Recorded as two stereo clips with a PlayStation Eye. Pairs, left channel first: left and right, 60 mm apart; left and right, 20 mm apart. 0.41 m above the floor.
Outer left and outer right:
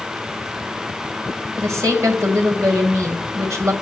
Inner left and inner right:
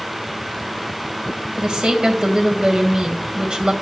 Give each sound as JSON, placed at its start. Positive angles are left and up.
{"t": 1.6, "sound": "a woman speaking", "side_deg": -60, "distance_m": 1.8}